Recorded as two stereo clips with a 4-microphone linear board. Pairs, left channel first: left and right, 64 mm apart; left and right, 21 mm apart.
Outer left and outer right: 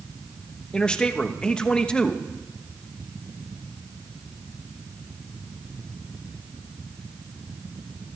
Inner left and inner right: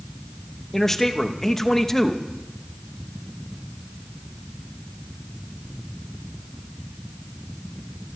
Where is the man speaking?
15° left (ahead or behind), 1.0 m.